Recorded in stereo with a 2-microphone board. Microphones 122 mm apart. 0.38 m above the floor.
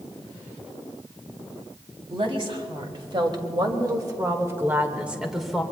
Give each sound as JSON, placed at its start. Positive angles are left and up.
{"t": 2.1, "sound": "a woman speaking", "side_deg": -50, "distance_m": 2.5}